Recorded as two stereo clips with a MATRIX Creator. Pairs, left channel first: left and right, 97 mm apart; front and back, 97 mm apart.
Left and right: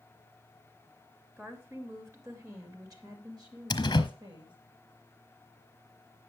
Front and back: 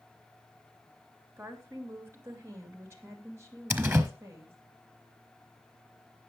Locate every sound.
1.4 s a woman speaking: 140° right, 1.8 m; by 4.5 s 120° right, 3 m
3.7 s a door slam: 115° left, 1.1 m